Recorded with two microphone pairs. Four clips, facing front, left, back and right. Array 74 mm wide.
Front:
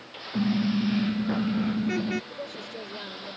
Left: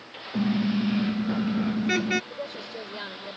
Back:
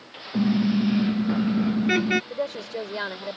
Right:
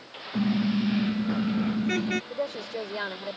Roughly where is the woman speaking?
Behind.